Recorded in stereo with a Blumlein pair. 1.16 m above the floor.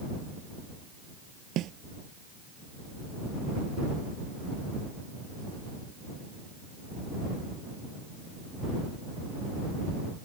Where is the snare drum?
35° right.